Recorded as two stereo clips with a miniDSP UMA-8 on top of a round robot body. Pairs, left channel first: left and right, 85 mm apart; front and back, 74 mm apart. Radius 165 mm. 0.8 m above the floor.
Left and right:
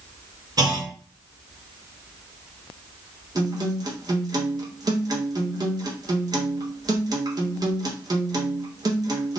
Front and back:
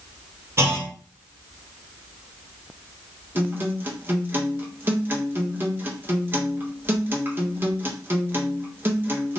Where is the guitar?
120° right, 1.2 m.